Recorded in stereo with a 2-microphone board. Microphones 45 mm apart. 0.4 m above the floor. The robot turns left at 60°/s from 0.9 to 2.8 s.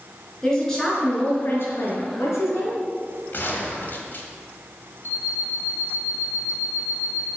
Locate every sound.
0.4 s a woman speaking: 165° left, 4.5 m; by 2.8 s 55° left, 4.5 m
3.3 s a gunshot: 45° left (ahead or behind), 1.9 m
5.0 s an alarm clock: 80° left, 4 m